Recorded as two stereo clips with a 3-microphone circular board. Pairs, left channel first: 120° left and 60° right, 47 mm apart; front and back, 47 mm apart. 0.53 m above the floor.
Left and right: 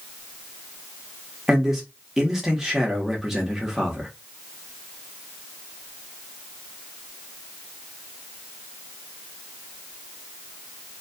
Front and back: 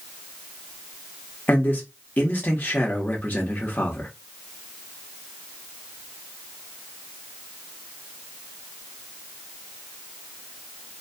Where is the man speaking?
20° left, 1.3 m.